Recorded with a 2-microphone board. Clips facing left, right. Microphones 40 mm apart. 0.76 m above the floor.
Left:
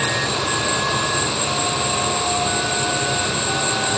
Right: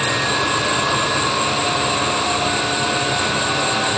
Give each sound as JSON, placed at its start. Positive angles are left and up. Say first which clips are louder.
{"t": 0.0, "sound": "an insect", "louder": "right 2 dB", "side_deg": -20, "distance_m": 1.8}